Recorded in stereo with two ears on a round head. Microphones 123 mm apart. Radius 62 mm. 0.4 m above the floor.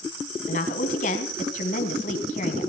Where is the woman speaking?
60° left (ahead or behind), 3.5 m.